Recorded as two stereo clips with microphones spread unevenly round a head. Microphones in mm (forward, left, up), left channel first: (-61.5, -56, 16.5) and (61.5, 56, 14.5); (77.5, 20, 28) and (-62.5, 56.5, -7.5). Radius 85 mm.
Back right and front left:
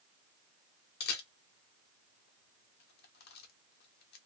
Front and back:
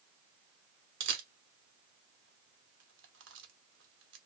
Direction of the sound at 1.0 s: 170° right.